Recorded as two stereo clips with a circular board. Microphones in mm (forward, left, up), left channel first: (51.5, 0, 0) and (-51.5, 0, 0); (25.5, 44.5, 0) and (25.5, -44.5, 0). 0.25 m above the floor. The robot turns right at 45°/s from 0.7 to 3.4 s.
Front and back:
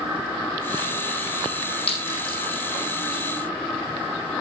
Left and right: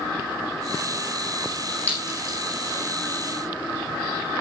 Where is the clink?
20° left, 6.5 m; by 2.4 s 45° left, 6.5 m.